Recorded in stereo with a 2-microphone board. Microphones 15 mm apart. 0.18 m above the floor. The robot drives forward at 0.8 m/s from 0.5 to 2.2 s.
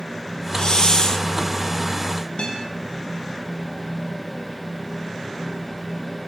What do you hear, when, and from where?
0.6 s a hiss: 55° left (ahead or behind), 1.3 m; by 1.3 s 40° left (ahead or behind), 1.6 m
2.4 s a guitar: 75° left (ahead or behind), 7 m